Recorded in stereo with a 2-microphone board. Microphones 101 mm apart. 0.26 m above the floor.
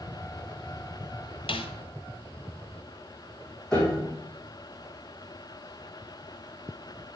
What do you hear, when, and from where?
1.5 s a snare drum: 70° left (ahead or behind), 0.9 m
3.7 s a piano: 5° left (ahead or behind), 3.5 m